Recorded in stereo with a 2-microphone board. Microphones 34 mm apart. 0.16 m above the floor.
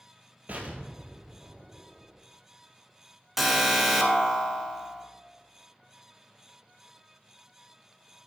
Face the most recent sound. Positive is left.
turn(degrees=-5)  # may be behind; listen again after turning